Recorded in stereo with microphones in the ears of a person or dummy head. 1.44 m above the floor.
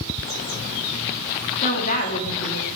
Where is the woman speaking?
35° left (ahead or behind), 3 m.